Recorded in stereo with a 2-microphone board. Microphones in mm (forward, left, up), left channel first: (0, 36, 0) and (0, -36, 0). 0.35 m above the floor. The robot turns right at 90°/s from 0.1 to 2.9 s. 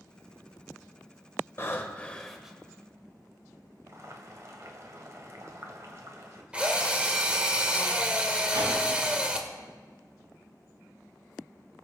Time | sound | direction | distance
1.6 | breathing | 110° left | 1.3 m
3.9 | boiling | 45° right (ahead or behind) | 1.7 m
6.5 | a drill | 15° right (ahead or behind) | 1.3 m
8.5 | a whoosh | 60° right (ahead or behind) | 6 m